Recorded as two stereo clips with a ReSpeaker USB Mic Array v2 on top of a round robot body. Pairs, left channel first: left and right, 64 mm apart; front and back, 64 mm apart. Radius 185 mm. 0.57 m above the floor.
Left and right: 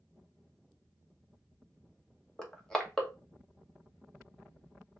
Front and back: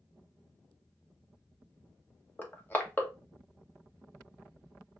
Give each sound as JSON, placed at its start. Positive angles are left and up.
{"t": 2.4, "sound": "crushing", "azimuth_deg": 20, "distance_m": 1.2}